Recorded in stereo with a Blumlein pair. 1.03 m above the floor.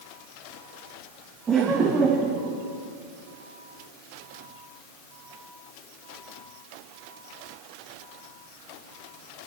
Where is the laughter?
20° right, 2.0 m; by 2.5 s 10° right, 2.5 m.